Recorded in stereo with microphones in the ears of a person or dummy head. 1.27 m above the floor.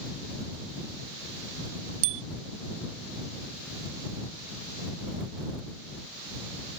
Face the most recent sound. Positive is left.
turn(degrees=-70)  # may be behind; listen again after turning